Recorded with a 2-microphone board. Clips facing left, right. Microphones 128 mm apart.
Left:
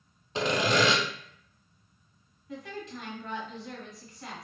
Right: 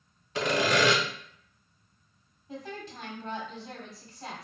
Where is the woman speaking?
35° right (ahead or behind), 1.2 m.